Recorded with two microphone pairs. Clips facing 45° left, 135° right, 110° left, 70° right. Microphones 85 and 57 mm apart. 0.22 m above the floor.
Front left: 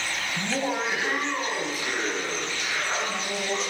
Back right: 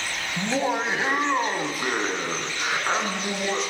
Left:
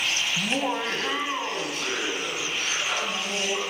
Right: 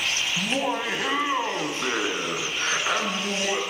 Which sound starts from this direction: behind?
Laughter, at 0.4 s.